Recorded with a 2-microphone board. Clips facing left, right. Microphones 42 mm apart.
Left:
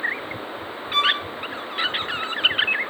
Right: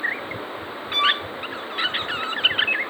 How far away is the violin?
About 1.8 m.